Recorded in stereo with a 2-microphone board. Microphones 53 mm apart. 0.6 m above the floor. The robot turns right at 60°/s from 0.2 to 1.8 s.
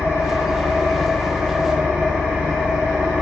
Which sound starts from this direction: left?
An engine running, at 0.0 s.